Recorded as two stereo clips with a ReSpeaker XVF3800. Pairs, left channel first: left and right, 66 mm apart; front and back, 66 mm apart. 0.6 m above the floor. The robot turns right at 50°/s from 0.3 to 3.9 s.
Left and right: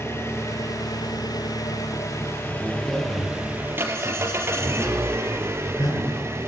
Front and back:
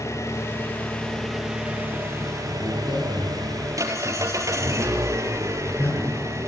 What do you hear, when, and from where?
0.0 s an engine running: 40° left, 4.5 m; by 6.5 s 140° right, 4.5 m
2.5 s a man speaking: 25° right, 10 m; by 6.3 s 45° left, 10 m